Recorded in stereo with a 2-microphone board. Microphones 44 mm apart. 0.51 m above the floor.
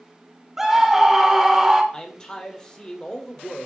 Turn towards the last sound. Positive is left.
turn(degrees=20)  # may be behind; listen again after turning